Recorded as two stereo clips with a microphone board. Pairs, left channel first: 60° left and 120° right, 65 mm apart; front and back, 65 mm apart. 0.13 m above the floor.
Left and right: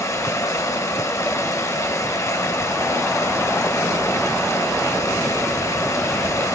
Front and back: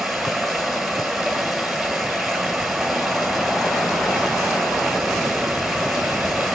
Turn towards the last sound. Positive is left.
turn(degrees=95)